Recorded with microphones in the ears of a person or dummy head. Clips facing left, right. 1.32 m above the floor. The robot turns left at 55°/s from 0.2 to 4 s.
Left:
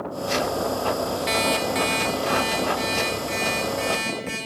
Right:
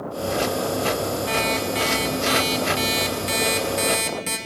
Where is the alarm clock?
30° left, 1.5 m; by 4.4 s 120° right, 1.5 m.